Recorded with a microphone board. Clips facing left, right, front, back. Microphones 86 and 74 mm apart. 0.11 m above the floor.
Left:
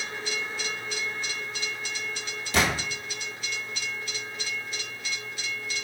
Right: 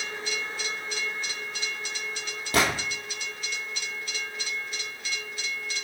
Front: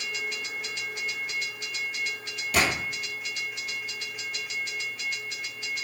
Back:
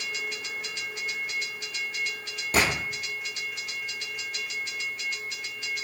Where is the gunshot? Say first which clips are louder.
Right 1 dB, back 1 dB; 125° right, 1.5 m.